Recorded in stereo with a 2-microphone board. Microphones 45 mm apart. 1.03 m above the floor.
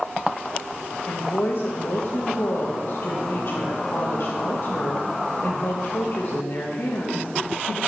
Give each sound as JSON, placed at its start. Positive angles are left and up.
{"t": 1.1, "sound": "a woman speaking", "side_deg": 55, "distance_m": 1.0}